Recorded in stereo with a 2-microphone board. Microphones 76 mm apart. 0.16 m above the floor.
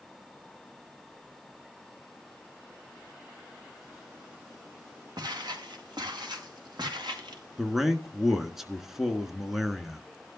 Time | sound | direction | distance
5.2 | footsteps | 65° right (ahead or behind) | 4 m
7.6 | a man speaking | 5° right (ahead or behind) | 1.5 m